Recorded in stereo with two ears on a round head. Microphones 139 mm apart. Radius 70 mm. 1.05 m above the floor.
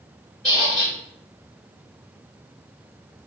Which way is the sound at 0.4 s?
5° left (ahead or behind).